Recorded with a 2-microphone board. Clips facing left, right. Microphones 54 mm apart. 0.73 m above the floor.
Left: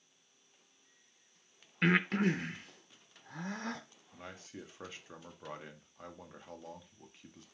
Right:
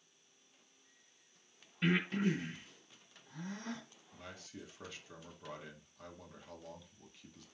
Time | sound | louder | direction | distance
1.8 | breathing | left 4 dB | 75° left (ahead or behind) | 0.6 m
4.1 | a man speaking | left 3 dB | 30° left (ahead or behind) | 1.0 m